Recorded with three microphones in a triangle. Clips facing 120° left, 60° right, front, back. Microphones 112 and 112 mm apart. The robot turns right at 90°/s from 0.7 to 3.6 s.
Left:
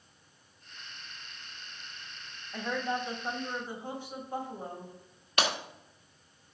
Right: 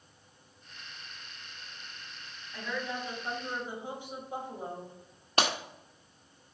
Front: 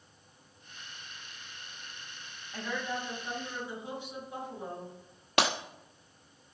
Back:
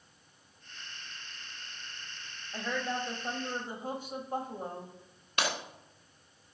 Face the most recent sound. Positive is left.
turn(degrees=-5)